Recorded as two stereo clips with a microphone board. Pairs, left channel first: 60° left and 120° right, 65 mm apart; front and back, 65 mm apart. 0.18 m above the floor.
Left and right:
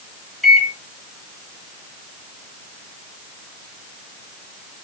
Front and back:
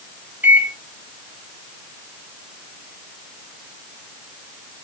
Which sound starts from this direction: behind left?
A microwave, at 0.4 s.